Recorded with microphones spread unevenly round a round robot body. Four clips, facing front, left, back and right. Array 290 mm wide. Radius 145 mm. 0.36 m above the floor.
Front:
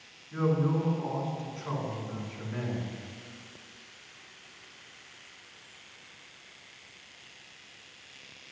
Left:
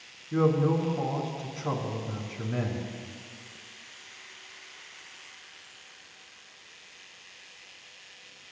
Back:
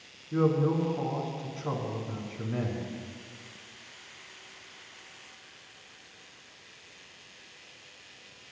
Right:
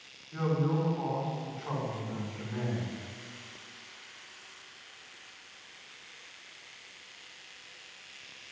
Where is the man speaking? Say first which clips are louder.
Left 6 dB, back 2 dB; 110° left, 4 m.